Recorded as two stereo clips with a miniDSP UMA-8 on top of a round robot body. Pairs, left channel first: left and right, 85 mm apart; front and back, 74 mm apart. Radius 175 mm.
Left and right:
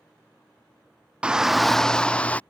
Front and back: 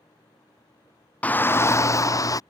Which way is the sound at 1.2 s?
35° right.